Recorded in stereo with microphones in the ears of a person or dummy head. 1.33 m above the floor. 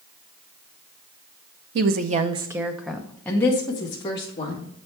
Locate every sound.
1.8 s a woman speaking: 60° right (ahead or behind), 0.6 m; by 4.7 s 25° left (ahead or behind), 1.8 m